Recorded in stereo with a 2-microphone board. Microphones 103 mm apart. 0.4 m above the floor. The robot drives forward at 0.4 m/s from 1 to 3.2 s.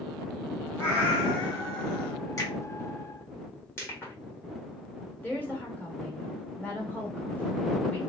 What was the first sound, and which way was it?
A cat meowing, 15° left (ahead or behind).